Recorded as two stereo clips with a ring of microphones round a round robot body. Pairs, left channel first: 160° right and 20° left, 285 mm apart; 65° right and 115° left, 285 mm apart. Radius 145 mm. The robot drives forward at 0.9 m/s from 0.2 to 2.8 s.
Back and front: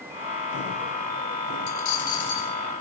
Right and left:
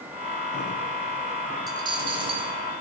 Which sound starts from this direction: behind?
A dropped coin, at 1.7 s.